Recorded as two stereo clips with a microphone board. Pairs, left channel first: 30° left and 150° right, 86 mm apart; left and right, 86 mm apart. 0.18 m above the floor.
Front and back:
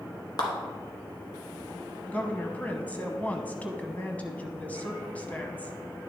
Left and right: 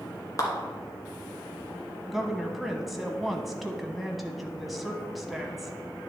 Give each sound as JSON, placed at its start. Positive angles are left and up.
{"t": 0.4, "sound": "a clap", "azimuth_deg": 50, "distance_m": 1.8}
{"t": 2.1, "sound": "a woman speaking", "azimuth_deg": -5, "distance_m": 1.0}